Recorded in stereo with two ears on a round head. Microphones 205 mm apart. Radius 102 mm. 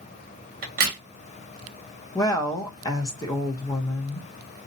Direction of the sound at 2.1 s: 15° left (ahead or behind).